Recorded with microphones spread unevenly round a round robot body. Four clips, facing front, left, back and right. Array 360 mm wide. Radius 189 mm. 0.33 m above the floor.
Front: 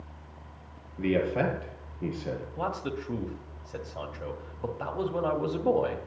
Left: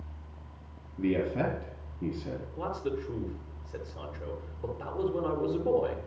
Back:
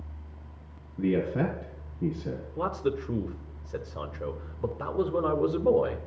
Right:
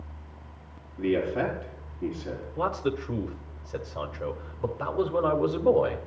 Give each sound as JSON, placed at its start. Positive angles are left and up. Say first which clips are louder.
{"t": 1.0, "sound": "a man speaking", "louder": "right 3 dB, even", "azimuth_deg": 165, "distance_m": 5.5}
{"t": 2.6, "sound": "a man speaking", "louder": "right 6 dB, back 6 dB", "azimuth_deg": -125, "distance_m": 1.6}